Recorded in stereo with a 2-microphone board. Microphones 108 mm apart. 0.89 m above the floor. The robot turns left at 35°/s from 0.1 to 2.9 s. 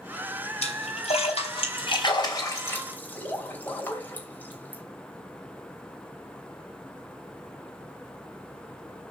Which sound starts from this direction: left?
A splash, at 0.6 s.